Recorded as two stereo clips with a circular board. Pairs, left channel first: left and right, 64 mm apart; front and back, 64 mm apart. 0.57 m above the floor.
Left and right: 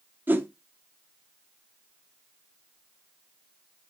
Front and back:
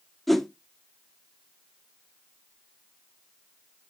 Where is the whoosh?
80° right, 1.0 m.